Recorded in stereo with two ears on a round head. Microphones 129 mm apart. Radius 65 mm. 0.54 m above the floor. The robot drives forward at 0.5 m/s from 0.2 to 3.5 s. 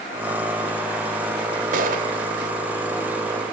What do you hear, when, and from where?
1.7 s a gunshot: 65° right (ahead or behind), 2.5 m